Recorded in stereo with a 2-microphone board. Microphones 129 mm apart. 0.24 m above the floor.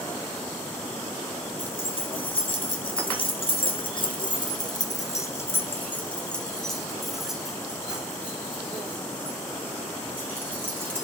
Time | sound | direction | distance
1.6 | keys jangling | 45° left (ahead or behind) | 2 m